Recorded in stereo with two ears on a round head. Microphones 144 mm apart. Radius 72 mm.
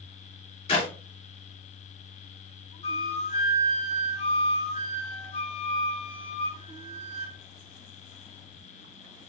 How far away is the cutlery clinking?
No cutlery clinking in this recording.